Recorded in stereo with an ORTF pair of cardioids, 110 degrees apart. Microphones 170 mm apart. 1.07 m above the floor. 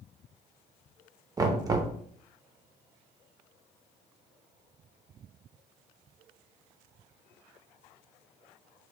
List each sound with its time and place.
1.4 s knocking: 20° right, 0.6 m